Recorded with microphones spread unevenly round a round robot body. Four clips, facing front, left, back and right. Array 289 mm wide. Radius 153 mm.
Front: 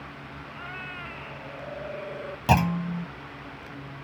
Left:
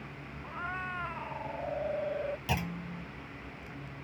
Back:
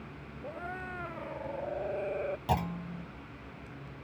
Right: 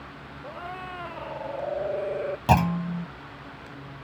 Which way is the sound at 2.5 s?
45° right.